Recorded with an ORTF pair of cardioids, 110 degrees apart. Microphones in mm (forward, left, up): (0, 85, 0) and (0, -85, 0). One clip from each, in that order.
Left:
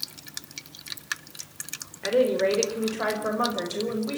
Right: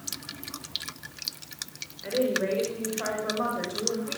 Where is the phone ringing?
I don't hear a phone ringing.